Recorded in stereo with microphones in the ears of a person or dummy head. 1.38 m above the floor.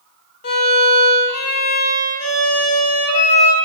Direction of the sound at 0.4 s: 60° left (ahead or behind).